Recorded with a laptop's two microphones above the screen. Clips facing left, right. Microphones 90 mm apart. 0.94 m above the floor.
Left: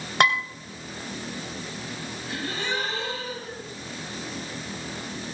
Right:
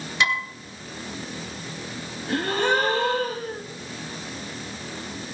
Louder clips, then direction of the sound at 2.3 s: Right 9 dB; 55° right (ahead or behind).